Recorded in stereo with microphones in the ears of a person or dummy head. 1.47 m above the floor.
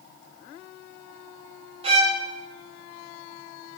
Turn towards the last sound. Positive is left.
turn(degrees=-25)  # may be behind; listen again after turning